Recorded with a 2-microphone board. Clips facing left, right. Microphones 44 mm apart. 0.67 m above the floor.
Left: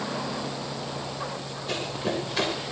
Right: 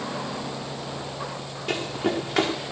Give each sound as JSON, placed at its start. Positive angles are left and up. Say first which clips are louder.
{"t": 1.7, "sound": "running footsteps", "louder": "right 4 dB", "side_deg": -70, "distance_m": 4.5}